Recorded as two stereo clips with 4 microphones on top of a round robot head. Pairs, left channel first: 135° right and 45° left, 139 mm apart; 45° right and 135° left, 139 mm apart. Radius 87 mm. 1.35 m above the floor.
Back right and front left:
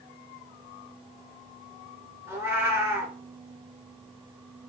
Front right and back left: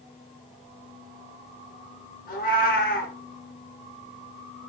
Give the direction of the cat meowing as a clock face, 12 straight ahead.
1 o'clock.